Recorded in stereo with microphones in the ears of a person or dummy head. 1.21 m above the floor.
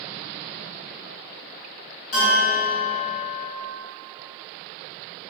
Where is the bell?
70° left (ahead or behind), 1.5 m.